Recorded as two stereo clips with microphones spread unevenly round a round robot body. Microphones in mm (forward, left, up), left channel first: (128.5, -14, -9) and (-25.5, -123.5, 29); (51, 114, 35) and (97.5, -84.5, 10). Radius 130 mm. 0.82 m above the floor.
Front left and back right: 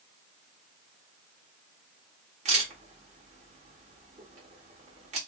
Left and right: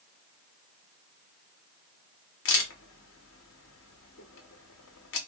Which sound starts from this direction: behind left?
A camera shutter, at 2.5 s.